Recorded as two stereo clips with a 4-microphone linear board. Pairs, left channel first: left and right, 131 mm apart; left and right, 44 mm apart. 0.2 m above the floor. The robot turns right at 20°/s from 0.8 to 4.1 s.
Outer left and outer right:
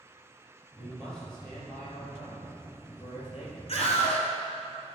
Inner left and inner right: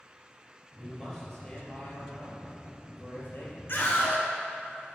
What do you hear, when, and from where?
0.8 s a man speaking: 30° left, 4 m; by 3.6 s 85° left, 4 m
3.7 s a scream: 60° left (ahead or behind), 2.5 m